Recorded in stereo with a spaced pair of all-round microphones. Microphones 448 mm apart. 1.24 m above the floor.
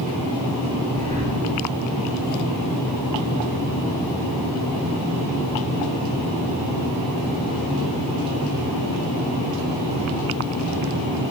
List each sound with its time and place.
0.9 s breathing: 15° right (ahead or behind), 8.5 m